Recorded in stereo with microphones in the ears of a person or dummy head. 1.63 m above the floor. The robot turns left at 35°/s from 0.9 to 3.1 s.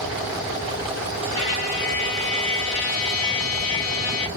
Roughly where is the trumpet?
Behind left.